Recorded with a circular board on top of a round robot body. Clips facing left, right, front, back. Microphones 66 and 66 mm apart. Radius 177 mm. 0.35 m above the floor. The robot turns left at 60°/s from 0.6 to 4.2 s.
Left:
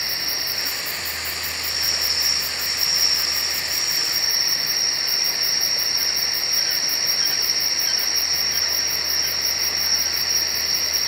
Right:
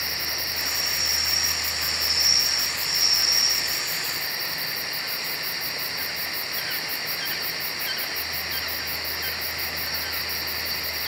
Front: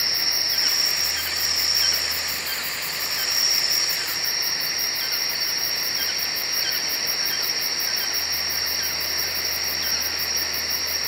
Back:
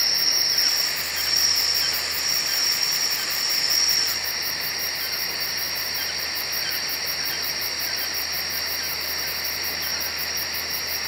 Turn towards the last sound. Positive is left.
turn(degrees=90)